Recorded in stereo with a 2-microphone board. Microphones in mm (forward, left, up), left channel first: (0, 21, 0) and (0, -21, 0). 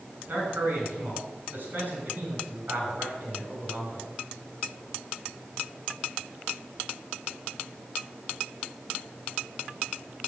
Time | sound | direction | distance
0.3 | a man speaking | 50° right (ahead or behind) | 7 m